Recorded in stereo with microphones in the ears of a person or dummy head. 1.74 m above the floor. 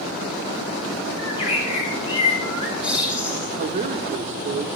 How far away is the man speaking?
About 1.1 m.